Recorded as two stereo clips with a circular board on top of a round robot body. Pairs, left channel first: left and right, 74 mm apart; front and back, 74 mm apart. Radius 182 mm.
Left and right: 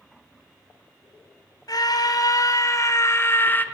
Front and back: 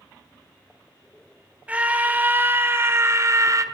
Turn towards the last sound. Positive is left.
turn(degrees=150)